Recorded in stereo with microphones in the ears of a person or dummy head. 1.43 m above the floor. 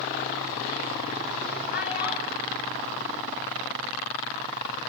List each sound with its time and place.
1.7 s a child speaking: 50° left (ahead or behind), 7.5 m; by 4.0 s 55° left (ahead or behind), 9 m